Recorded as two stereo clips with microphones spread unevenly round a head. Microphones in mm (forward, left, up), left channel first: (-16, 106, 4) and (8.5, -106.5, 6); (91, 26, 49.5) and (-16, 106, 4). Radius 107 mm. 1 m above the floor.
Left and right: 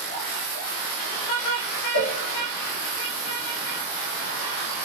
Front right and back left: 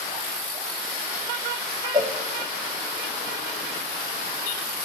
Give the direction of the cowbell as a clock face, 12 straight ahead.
8 o'clock.